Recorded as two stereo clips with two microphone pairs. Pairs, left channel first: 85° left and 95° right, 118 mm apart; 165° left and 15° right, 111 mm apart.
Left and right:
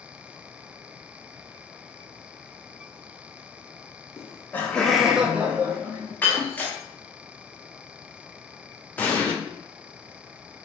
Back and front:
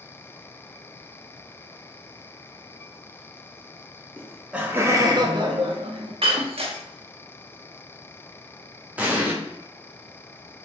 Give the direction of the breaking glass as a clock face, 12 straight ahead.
12 o'clock.